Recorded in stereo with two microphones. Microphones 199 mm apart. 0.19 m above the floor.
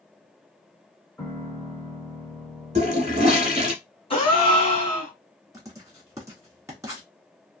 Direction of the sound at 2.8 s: 40° right (ahead or behind).